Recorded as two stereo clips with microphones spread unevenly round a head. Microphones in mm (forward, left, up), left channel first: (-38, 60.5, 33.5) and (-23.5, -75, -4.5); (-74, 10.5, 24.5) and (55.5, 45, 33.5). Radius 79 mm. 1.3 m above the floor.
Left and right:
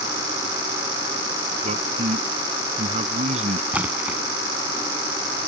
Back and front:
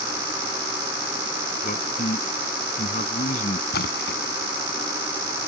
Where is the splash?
165° right.